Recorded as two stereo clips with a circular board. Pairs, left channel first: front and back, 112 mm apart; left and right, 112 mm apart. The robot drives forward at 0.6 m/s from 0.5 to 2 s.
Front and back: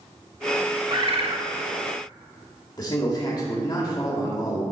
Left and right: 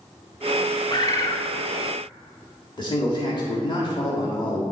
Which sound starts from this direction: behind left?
A bird, at 0.9 s.